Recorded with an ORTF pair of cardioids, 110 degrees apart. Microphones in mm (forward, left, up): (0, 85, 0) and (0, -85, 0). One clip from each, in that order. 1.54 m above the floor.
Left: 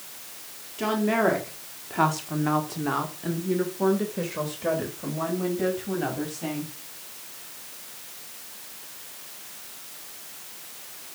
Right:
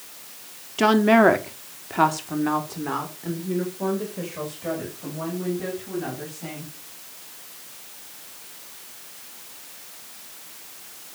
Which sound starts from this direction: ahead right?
A woman speaking, at 0.8 s.